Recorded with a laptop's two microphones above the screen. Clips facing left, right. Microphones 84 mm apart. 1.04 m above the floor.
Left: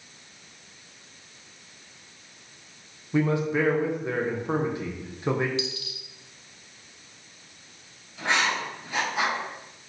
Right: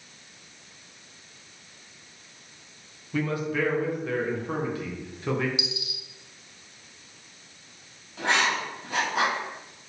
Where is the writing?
85° right, 1.6 m.